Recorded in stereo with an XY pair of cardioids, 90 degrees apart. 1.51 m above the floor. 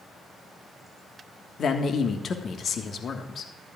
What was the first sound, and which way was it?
A man speaking, 50° left.